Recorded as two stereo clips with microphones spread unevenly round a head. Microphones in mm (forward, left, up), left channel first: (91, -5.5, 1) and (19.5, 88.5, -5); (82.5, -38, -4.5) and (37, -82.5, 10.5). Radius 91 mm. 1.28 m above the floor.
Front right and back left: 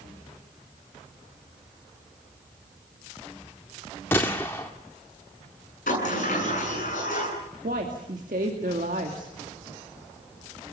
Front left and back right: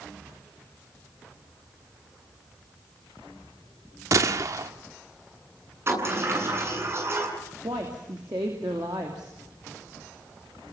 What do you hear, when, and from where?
4.1 s a gunshot: 130° right, 1.5 m
5.9 s a sliding door: 95° right, 8 m
7.6 s a woman speaking: 170° left, 2.5 m